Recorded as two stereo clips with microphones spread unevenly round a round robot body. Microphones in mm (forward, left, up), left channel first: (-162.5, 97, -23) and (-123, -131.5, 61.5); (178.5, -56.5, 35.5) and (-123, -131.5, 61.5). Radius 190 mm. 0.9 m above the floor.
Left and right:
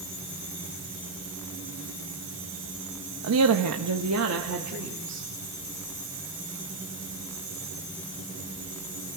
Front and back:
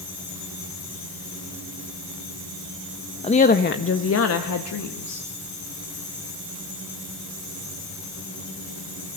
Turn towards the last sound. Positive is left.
turn(degrees=-15)